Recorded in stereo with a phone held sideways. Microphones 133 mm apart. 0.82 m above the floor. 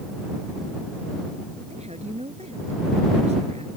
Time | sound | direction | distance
1.7 | a woman speaking | 55° right (ahead or behind) | ?